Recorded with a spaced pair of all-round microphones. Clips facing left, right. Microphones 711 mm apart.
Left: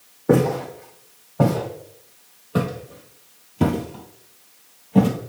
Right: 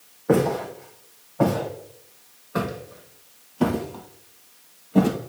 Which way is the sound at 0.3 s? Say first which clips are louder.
Left 2 dB; 55° left (ahead or behind).